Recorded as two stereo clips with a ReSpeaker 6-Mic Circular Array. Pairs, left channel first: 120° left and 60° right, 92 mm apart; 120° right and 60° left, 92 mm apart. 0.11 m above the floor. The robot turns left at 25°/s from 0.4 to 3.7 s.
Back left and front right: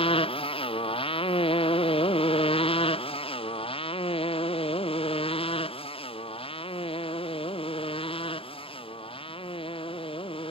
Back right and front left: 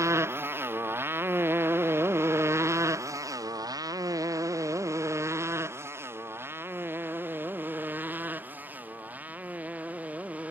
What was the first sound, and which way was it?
A motorcycle, 120° left.